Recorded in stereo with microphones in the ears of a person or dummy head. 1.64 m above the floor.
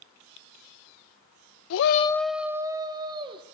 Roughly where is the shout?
Left.